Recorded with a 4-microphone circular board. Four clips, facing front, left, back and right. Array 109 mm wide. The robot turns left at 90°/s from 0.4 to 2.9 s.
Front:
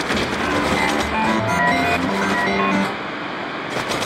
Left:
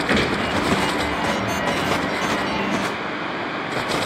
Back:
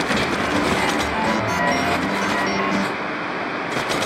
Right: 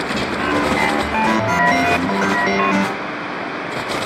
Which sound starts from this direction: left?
A gunshot, at 0.1 s.